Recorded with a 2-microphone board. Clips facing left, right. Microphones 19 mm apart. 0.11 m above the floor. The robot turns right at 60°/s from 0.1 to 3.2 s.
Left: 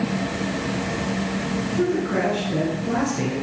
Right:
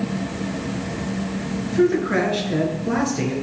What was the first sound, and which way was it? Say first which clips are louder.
A man speaking: right 6 dB; 115° right.